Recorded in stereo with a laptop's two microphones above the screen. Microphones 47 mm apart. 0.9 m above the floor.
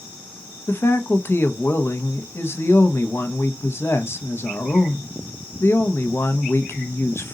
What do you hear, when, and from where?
0.7 s a man speaking: 55° left (ahead or behind), 0.9 m